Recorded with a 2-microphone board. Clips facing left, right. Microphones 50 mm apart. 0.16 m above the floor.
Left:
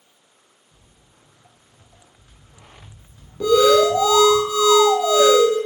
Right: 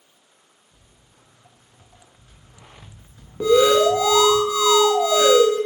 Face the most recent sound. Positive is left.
turn(degrees=-25)  # may be behind; listen again after turning